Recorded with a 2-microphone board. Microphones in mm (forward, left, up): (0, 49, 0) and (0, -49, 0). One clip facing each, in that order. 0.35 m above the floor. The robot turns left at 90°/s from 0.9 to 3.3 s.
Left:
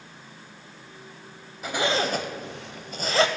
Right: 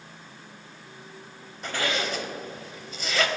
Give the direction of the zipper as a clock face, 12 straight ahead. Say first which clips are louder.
Left 4 dB; 6 o'clock.